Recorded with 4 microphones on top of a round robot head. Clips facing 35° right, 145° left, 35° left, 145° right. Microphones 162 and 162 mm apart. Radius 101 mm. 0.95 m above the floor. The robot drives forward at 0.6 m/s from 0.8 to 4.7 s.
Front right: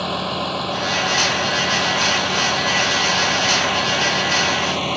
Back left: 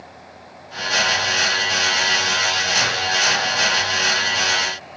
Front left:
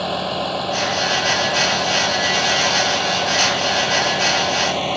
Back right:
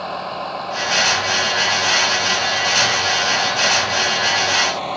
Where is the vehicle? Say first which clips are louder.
Front right 17 dB, front left 4 dB; 25° right; by 5.0 s 30° right.